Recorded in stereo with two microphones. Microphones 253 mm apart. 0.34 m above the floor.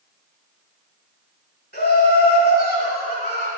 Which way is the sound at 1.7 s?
40° left (ahead or behind).